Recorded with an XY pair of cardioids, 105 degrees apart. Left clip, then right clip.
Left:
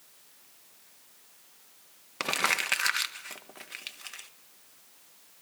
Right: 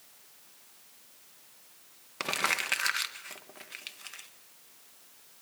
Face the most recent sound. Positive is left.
turn(degrees=20)